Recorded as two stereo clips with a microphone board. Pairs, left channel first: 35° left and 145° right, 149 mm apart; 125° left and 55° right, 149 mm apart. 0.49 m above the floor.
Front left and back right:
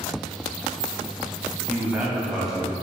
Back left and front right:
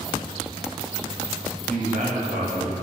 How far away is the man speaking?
About 3 m.